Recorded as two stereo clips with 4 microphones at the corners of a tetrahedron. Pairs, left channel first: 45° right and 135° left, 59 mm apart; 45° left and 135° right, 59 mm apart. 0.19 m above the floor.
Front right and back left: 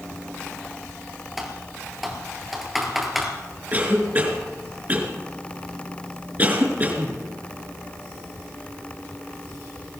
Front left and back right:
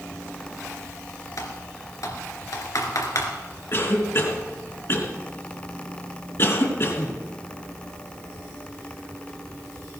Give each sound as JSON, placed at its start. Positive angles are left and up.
{"t": 1.4, "sound": "typing on a keyboard", "azimuth_deg": 50, "distance_m": 2.5}
{"t": 3.7, "sound": "a cough", "azimuth_deg": 80, "distance_m": 3.0}